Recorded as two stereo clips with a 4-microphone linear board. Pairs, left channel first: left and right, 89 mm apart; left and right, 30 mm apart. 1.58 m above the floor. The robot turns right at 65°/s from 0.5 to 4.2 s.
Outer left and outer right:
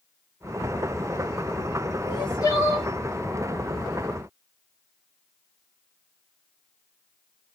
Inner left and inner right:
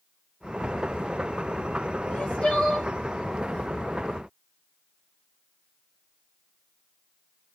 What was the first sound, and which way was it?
Crying, 115° left.